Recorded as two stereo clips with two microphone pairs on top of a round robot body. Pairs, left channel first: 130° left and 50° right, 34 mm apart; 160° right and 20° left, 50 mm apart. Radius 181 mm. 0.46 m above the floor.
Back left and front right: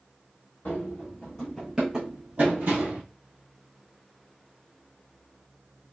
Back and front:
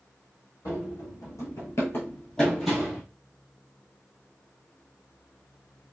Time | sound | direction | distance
0.7 | running footsteps | 175° left | 1.1 m